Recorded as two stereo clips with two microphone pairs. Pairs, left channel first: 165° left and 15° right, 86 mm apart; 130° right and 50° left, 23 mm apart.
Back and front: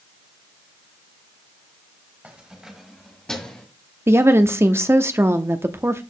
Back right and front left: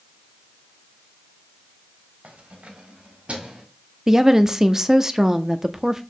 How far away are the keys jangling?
About 1.8 m.